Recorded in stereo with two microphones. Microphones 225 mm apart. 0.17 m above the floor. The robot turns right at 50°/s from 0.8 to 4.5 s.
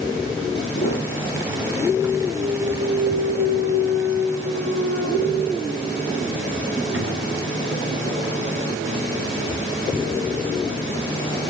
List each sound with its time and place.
0.8 s a piano: 80° left, 7.5 m; by 1.6 s 120° left, 7.5 m
2.3 s a clunk: 5° right (ahead or behind), 3.5 m; by 10.5 s 65° right (ahead or behind), 3.5 m